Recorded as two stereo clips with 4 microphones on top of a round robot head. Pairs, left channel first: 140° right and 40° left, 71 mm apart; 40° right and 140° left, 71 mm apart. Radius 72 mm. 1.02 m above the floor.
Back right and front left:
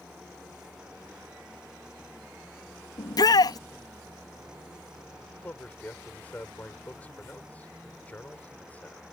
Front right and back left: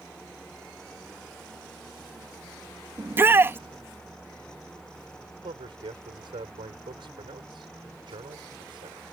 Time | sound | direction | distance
3.0 | a shout | 160° right | ?
5.4 | a man speaking | 150° left | ?